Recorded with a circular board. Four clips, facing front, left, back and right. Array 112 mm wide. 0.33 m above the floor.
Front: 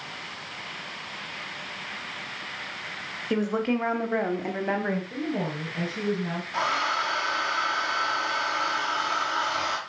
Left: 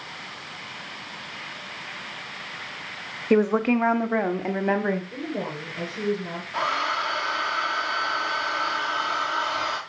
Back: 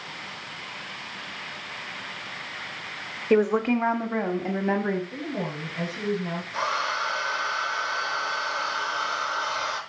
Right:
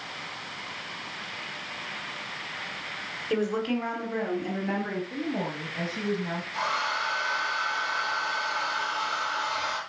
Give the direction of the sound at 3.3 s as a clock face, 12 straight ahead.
8 o'clock.